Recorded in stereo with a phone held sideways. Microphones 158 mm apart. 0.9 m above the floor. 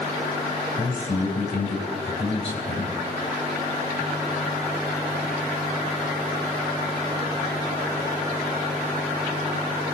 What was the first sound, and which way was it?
A man speaking, 40° left (ahead or behind).